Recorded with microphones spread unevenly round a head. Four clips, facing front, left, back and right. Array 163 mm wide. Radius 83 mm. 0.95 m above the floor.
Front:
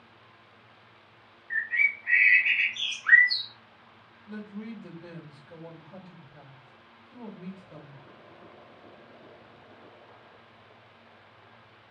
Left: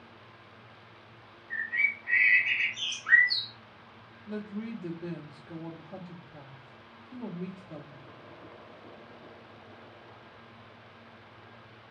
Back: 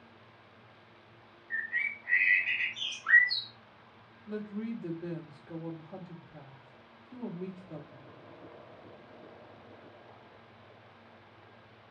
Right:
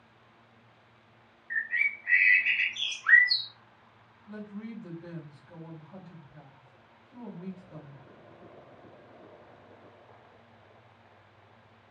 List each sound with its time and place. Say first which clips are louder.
1.5 s a bird: right 1 dB, front 6 dB; 45° right, 1.3 m
4.3 s a woman speaking: left 4 dB, back 3 dB; 115° left, 1.3 m